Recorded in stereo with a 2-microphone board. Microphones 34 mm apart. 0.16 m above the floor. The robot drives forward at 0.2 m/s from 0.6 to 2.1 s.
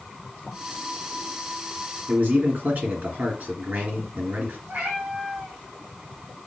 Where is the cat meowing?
45° right (ahead or behind), 3 m.